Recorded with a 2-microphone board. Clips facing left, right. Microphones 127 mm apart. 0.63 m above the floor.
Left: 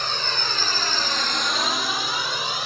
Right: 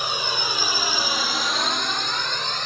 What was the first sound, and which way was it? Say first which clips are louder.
A drone: right 1 dB; 10° right (ahead or behind).